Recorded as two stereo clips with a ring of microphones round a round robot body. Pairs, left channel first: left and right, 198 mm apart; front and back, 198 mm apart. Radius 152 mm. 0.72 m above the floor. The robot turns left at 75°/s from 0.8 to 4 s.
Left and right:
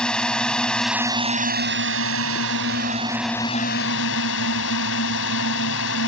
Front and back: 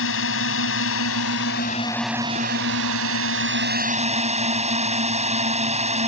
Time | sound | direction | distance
0.0 | a drone | 5° left | ?